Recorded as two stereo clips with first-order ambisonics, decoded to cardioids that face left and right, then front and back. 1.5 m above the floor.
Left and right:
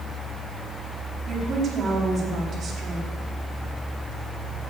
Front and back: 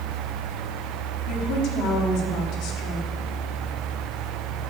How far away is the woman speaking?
About 4.5 m.